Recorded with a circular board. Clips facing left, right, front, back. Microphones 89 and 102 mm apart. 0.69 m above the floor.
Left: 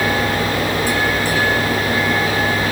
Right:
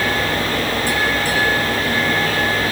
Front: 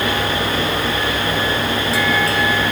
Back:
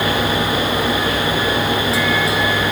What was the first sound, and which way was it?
Only background noise.